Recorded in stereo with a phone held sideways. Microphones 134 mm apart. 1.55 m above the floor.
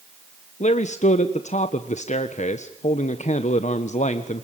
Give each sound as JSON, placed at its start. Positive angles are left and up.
{"t": 0.6, "sound": "a man speaking", "side_deg": 65, "distance_m": 1.4}